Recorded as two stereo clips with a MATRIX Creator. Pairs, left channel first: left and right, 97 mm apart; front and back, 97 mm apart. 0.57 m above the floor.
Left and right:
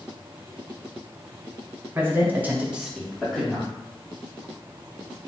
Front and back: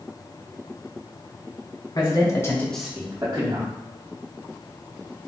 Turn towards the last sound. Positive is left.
turn(degrees=165)